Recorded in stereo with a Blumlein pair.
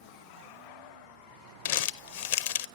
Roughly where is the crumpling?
Ahead left.